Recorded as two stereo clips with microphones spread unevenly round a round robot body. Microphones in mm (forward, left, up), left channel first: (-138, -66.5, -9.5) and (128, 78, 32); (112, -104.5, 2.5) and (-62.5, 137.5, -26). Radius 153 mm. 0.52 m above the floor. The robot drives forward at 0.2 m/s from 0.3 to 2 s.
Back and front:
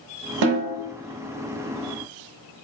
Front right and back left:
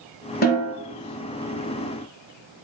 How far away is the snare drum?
About 0.7 m.